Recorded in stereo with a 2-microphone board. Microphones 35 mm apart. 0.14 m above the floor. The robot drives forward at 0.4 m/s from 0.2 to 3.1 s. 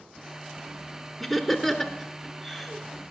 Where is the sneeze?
I don't hear a sneeze.